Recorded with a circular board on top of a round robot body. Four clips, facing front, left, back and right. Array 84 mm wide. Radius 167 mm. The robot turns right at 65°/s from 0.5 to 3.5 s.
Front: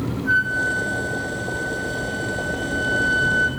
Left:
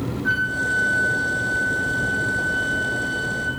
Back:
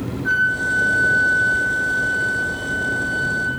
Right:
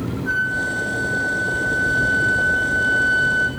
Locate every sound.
0.2 s a flute: 135° left, 3.5 m; by 3.5 s 30° right, 3.5 m